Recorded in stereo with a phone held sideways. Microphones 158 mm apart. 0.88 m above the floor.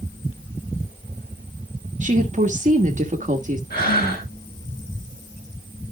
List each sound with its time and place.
2.0 s a woman speaking: 50° right (ahead or behind), 1.4 m
3.7 s breathing: 75° left (ahead or behind), 9.5 m